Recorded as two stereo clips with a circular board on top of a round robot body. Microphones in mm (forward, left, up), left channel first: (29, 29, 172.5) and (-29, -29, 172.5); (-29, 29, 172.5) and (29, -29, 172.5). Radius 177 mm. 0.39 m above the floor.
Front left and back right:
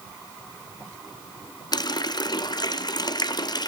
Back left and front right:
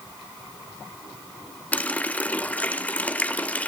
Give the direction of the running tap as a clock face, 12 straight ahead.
10 o'clock.